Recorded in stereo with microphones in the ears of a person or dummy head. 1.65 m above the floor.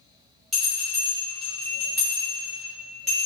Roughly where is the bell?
Centre.